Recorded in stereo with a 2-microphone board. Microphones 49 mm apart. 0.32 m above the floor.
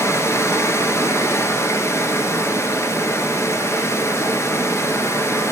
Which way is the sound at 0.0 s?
80° left.